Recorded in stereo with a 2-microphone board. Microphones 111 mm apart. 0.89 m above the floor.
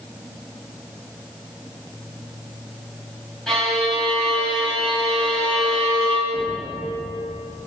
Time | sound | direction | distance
3.5 | a violin | 5° left (ahead or behind) | 4.5 m
6.3 | knocking | 45° left (ahead or behind) | 2 m